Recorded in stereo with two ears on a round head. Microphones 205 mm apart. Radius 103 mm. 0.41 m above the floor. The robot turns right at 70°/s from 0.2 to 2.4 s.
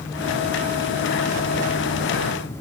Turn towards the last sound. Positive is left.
No sound to turn to.